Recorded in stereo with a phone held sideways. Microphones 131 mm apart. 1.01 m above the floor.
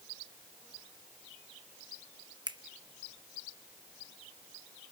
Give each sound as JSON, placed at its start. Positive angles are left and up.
{"t": 2.5, "sound": "a finger snap", "side_deg": -35, "distance_m": 0.8}